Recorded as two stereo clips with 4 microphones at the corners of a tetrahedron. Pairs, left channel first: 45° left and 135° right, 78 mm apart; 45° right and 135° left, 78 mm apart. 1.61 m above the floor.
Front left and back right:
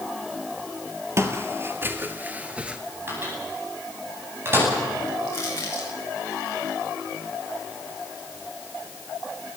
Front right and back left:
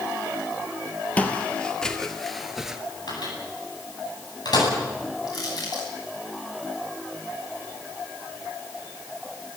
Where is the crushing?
10° right, 9 m.